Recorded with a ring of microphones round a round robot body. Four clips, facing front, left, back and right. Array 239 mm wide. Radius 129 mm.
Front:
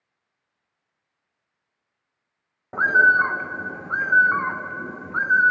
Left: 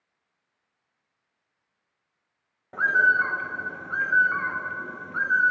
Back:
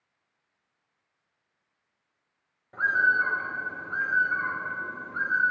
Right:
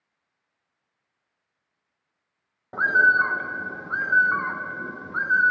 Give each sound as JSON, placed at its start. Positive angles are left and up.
{"t": 2.7, "sound": "a bird", "azimuth_deg": -20, "distance_m": 0.6}